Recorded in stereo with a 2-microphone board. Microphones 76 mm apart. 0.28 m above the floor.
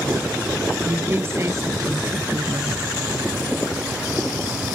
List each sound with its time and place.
0.8 s a woman speaking: 30° right (ahead or behind); by 2.9 s 55° right (ahead or behind)